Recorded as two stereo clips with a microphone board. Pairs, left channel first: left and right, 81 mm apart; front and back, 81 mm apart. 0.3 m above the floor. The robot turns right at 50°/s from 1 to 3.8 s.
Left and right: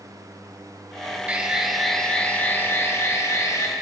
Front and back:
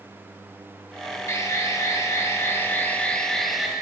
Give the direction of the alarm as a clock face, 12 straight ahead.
1 o'clock.